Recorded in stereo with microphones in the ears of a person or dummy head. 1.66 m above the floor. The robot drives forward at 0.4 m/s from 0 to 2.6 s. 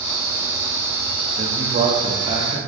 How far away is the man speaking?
About 1.1 m.